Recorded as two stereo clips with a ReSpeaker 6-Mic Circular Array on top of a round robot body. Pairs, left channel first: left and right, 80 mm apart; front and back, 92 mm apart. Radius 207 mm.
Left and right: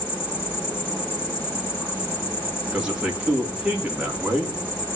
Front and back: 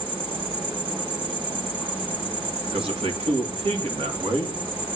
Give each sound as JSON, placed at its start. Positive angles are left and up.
{"t": 0.0, "sound": "an insect", "azimuth_deg": 150, "distance_m": 3.0}
{"t": 2.7, "sound": "a man speaking", "azimuth_deg": -170, "distance_m": 3.0}